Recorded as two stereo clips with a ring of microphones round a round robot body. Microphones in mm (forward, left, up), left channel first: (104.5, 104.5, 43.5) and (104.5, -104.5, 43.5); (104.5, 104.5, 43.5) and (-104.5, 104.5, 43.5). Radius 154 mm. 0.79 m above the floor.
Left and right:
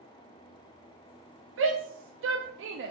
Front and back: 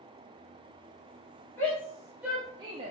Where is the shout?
80° right, 1.2 m; by 2.9 s 125° right, 0.7 m.